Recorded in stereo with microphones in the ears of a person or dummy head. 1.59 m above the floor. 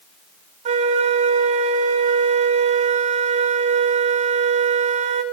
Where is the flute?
40° right (ahead or behind), 1.0 m.